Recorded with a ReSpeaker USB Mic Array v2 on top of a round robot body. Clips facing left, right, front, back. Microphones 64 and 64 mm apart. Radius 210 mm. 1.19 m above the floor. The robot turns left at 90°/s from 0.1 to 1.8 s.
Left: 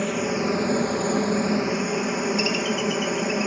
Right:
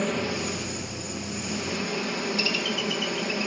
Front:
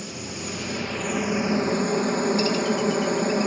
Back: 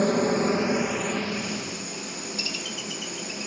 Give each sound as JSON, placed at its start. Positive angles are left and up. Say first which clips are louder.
{"t": 0.0, "sound": "a helicopter", "louder": "left 4 dB, back 13 dB", "azimuth_deg": 175}